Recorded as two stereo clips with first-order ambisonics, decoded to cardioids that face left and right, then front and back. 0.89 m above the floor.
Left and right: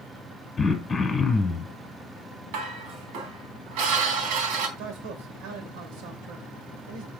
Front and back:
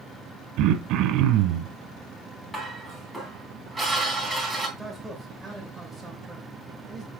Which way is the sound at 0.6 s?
165° left.